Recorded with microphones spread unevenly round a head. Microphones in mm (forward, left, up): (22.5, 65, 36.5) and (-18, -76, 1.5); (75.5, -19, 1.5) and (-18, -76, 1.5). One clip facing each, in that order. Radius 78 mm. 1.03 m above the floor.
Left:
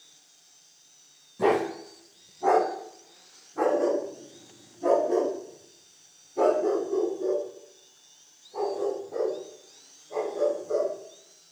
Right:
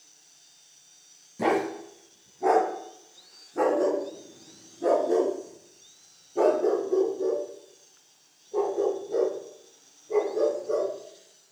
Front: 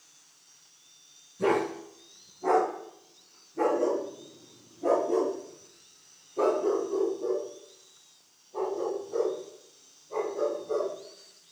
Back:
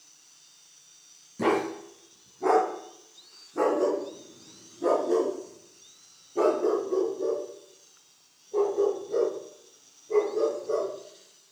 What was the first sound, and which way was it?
A dog barking, 175° left.